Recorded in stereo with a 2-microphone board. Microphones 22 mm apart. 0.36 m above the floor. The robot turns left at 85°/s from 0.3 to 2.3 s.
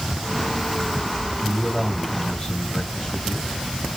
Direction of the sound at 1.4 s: 135° right.